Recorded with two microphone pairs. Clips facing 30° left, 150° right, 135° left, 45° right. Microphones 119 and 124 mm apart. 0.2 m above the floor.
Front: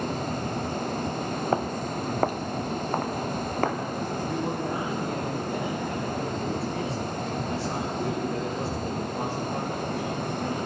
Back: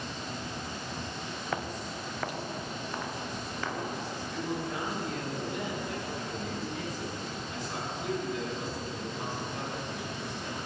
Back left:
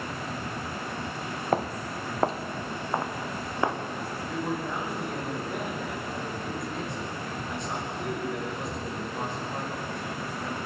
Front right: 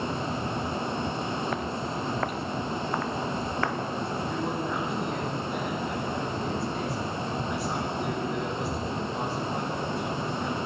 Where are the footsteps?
80° left, 1.3 m; by 3.8 s 65° left, 3 m.